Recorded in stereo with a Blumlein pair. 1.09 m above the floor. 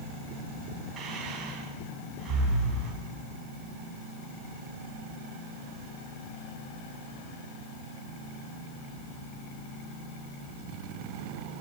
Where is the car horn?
No car horn in this recording.